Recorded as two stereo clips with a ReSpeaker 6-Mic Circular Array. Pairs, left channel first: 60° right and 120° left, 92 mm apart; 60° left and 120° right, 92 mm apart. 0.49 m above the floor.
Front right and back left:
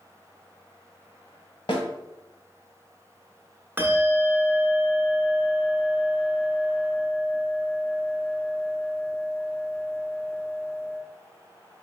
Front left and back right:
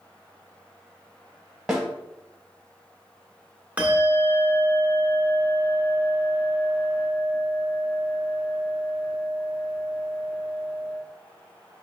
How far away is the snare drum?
About 1.1 m.